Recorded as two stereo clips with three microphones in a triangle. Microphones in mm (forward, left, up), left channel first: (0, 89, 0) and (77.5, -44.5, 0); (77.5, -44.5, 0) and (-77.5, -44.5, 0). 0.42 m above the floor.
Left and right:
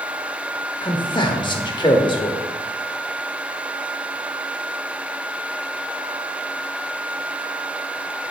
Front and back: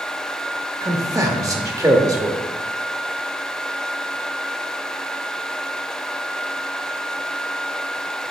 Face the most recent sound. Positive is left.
turn(degrees=135)